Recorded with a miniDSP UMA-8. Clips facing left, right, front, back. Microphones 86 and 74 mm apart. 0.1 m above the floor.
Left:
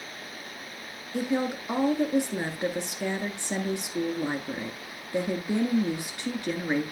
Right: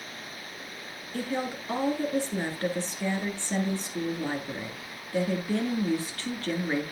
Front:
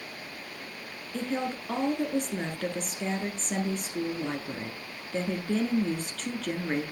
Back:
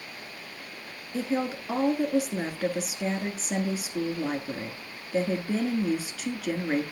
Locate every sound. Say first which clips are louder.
1.1 s a woman speaking: left 4 dB, back 3 dB; 115° left, 1.2 m